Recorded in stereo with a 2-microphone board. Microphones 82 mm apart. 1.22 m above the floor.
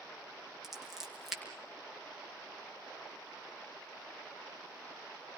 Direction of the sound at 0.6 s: Centre (ahead or behind).